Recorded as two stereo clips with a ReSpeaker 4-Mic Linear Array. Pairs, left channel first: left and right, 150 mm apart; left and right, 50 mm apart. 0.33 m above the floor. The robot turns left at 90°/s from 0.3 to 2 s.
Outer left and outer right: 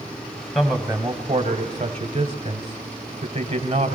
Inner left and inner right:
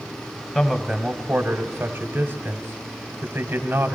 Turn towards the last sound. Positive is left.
turn(degrees=-125)